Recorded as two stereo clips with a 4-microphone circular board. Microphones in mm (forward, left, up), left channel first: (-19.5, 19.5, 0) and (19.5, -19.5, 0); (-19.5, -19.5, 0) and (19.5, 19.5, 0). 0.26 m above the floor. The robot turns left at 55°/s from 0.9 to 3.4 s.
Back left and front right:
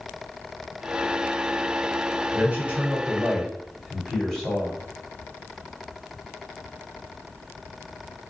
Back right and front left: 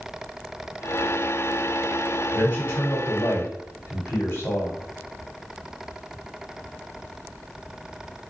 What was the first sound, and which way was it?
A man speaking, 85° right.